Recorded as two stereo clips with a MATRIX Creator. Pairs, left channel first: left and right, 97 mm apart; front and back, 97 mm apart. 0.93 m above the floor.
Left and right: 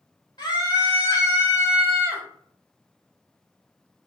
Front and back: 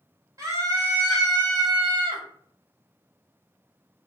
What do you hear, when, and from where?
0.4 s a scream: 125° left, 1.8 m; by 2.2 s 160° left, 1.1 m